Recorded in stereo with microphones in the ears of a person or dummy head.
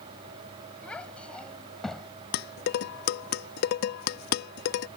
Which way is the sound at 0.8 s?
5° left (ahead or behind).